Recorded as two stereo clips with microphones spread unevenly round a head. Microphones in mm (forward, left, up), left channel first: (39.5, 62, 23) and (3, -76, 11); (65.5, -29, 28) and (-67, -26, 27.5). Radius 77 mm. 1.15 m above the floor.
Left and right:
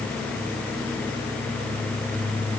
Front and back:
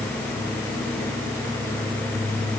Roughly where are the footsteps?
I don't hear footsteps.